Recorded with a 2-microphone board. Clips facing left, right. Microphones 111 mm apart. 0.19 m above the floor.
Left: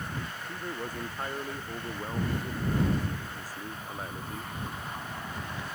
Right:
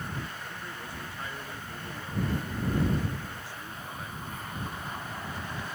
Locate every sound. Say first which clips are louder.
0.5 s a man speaking: left 4 dB; 45° left (ahead or behind); by 4.5 s 35° left (ahead or behind)